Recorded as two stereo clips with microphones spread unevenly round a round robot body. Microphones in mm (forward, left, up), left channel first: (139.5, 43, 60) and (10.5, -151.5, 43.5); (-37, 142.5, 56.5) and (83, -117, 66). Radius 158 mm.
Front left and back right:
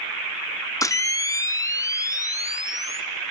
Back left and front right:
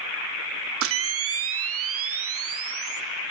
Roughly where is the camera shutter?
Ahead.